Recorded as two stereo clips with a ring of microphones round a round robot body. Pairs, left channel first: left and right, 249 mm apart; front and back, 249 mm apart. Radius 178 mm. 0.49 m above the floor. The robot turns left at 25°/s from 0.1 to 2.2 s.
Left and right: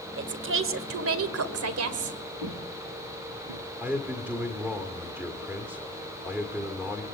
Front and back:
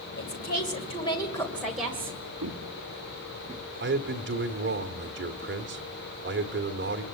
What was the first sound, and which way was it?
A woman speaking, 50° right.